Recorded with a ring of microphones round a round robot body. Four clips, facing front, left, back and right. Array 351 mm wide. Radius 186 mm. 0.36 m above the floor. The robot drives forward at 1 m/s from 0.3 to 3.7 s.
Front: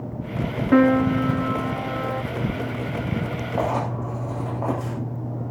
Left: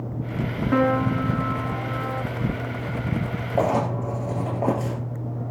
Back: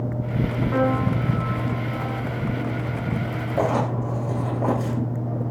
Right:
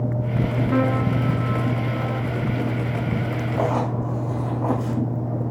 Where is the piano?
5° left, 2.5 m; by 2.2 s 15° left, 1.2 m.